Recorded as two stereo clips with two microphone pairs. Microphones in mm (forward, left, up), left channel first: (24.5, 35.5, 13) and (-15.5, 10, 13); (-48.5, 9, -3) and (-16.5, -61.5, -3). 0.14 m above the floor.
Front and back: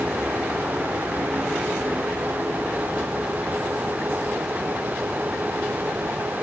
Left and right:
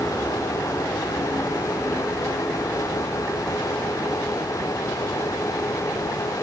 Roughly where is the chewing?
I don't hear chewing.